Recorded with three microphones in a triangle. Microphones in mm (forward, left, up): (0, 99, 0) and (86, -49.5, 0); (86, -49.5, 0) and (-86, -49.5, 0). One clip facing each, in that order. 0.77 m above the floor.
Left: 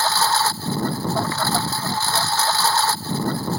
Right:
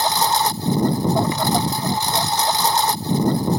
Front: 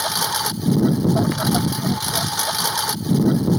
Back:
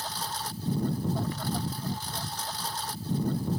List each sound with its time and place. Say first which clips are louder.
0.0 s a lawn mower: right 2 dB, front 11 dB; 15° left